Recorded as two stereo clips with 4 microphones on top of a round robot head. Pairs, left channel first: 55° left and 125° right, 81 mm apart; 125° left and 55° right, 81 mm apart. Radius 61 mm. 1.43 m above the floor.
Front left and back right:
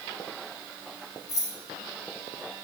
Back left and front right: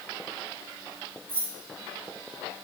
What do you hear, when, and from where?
1.3 s keys jangling: 10° left, 3 m